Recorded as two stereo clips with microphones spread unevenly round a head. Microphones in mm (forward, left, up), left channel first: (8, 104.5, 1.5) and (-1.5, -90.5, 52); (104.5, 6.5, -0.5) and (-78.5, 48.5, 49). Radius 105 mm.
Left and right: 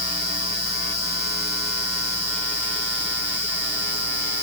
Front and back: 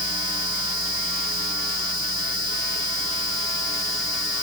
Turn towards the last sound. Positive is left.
No sound to turn to.